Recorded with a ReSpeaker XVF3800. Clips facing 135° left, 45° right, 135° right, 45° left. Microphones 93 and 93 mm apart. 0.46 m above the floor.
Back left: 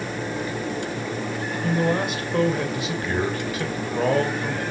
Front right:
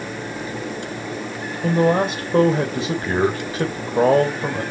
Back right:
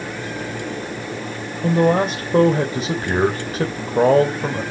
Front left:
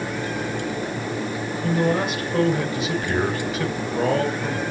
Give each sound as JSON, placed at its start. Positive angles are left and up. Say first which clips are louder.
{"t": 1.6, "sound": "a man speaking", "louder": "front right 6 dB, back right 6 dB", "azimuth_deg": -95, "distance_m": 2.0}